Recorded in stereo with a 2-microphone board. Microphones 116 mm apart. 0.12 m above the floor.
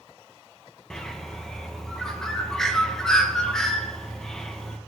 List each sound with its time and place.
0.9 s a bird: 5° left (ahead or behind), 0.6 m